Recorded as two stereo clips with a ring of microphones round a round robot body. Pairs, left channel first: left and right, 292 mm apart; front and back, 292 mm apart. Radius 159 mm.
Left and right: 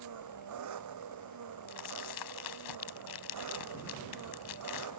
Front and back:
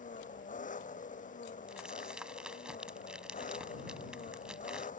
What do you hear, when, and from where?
0.0 s an engine running: 65° right
1.7 s crumpling: 90° left